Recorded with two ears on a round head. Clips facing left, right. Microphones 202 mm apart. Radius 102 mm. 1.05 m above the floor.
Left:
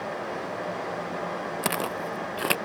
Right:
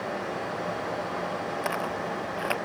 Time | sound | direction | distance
1.6 | footsteps | 45° left (ahead or behind) | ?